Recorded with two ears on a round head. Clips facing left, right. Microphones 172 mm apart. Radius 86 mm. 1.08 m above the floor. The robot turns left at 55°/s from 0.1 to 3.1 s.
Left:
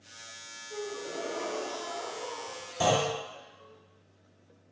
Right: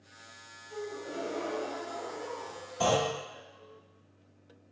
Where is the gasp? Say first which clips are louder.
Left 1 dB; 55° left, 0.7 m; by 3.8 s 75° right, 0.7 m.